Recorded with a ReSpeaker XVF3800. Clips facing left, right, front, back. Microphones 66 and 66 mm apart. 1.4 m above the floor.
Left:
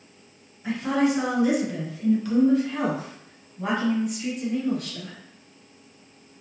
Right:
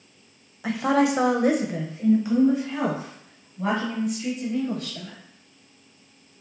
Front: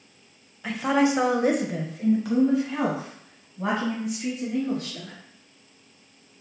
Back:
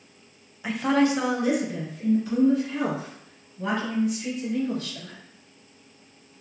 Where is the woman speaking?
100° right, 0.7 m; by 5.2 s 5° left, 2.5 m.